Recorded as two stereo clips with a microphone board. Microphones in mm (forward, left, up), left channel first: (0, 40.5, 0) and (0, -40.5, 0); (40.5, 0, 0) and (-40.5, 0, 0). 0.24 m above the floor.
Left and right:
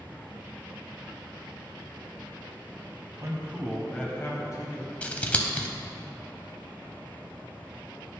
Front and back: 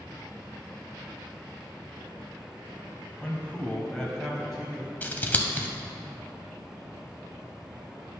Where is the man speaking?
65° right, 1.3 m; by 4.9 s 95° left, 1.6 m.